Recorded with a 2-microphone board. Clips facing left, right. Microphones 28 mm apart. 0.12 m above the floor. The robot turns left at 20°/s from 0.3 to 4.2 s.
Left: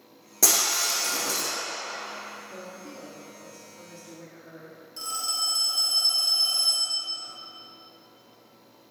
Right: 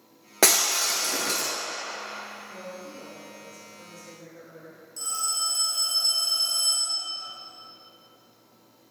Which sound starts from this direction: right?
Breaking glass, at 0.4 s.